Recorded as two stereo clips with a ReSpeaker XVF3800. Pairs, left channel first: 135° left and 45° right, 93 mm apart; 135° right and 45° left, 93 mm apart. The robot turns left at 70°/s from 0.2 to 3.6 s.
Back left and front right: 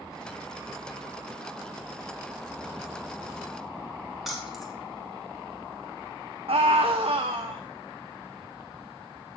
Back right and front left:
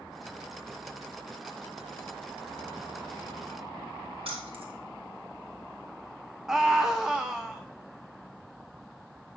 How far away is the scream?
About 0.8 m.